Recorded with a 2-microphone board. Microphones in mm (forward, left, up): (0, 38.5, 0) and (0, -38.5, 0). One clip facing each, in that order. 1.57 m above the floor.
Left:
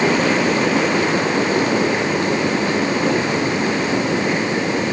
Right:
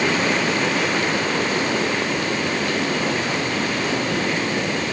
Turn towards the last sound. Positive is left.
No sound to turn to.